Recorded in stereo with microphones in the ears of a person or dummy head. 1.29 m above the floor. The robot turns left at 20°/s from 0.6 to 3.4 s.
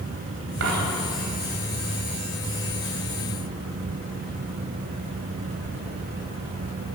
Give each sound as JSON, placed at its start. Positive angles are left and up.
{"t": 0.6, "sound": "a dropped coin", "side_deg": -75, "distance_m": 3.0}